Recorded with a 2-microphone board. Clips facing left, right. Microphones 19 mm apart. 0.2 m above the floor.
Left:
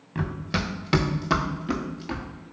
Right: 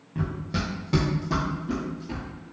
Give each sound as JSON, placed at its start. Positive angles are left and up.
{"t": 0.1, "sound": "running footsteps", "side_deg": 50, "distance_m": 1.0}